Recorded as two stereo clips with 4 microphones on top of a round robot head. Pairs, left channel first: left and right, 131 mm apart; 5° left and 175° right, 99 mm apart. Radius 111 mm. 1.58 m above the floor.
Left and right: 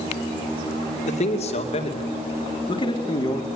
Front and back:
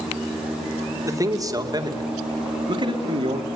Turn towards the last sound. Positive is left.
turn(degrees=155)